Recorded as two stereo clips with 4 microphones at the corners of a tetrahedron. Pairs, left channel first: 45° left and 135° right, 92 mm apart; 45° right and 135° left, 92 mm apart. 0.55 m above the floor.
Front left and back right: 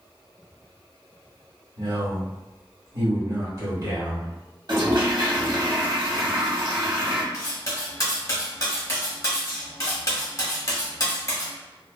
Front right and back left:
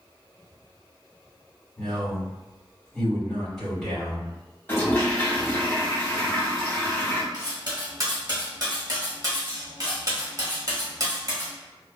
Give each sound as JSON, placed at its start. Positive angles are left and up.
{"t": 1.8, "sound": "a man speaking", "azimuth_deg": -130, "distance_m": 1.5}
{"t": 4.7, "sound": "a toilet flushing", "azimuth_deg": -110, "distance_m": 0.9}
{"t": 7.3, "sound": "cutlery clinking", "azimuth_deg": 95, "distance_m": 0.9}